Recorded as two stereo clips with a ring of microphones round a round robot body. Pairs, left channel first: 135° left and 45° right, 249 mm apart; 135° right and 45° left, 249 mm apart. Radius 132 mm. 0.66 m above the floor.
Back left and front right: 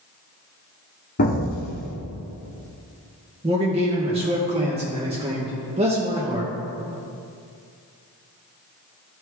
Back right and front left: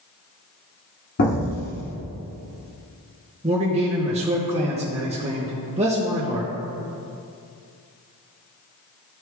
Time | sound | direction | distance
1.2 | an explosion | 175° right | 1.0 m
3.4 | a man speaking | straight ahead | 0.9 m